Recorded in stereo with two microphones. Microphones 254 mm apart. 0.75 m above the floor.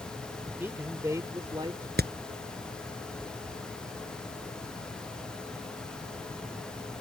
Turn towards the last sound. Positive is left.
turn(degrees=-40)  # may be behind; listen again after turning